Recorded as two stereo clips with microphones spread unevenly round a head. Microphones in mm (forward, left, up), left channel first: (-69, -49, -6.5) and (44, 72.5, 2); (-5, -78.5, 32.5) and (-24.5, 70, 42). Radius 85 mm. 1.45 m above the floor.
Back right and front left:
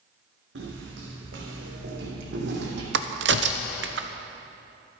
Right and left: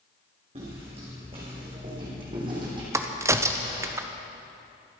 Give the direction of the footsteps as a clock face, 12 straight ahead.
11 o'clock.